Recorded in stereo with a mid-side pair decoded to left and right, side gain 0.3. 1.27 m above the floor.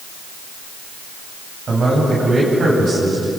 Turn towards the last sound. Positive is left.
turn(degrees=-65)